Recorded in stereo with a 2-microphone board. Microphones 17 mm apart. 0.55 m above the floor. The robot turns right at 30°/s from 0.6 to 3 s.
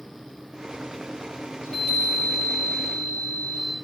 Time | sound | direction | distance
1.6 | a chime | 80° left | 4.5 m